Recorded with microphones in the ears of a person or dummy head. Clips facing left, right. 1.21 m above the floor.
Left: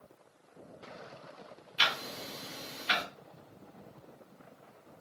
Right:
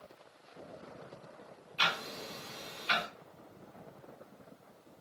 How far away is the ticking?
About 1.9 m.